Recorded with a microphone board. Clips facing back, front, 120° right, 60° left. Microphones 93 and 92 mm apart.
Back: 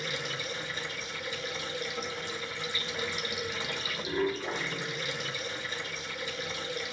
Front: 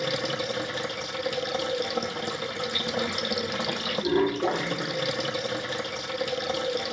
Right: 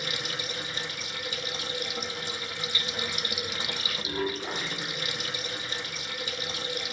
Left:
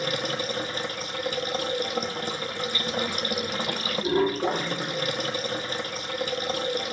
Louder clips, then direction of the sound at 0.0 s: Front 8 dB, left 7 dB; 15° left.